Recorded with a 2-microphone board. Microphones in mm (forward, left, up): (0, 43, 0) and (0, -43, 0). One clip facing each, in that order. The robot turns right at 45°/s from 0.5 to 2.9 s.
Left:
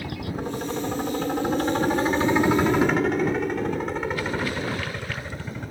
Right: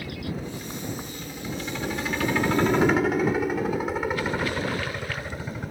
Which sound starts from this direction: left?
A helicopter, at 0.0 s.